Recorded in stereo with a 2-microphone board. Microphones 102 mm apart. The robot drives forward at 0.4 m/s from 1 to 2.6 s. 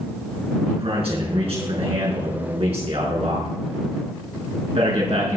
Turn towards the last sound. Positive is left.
turn(degrees=-75)  # may be behind; listen again after turning